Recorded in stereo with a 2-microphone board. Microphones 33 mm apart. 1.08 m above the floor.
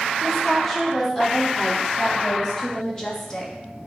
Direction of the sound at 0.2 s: 15° left (ahead or behind).